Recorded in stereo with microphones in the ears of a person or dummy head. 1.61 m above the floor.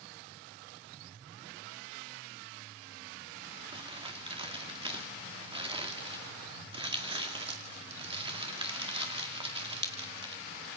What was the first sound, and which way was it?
Crumpling, 30° right (ahead or behind).